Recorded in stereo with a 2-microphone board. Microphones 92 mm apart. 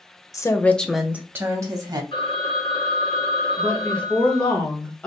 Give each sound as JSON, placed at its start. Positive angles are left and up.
{"t": 0.3, "sound": "a woman speaking", "side_deg": 40, "distance_m": 0.6}
{"t": 2.1, "sound": "a phone ringing", "side_deg": 60, "distance_m": 1.1}
{"t": 3.6, "sound": "a woman speaking", "side_deg": 15, "distance_m": 1.3}